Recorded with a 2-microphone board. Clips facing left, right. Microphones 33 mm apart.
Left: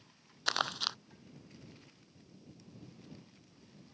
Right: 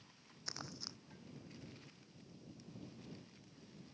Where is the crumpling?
80° left.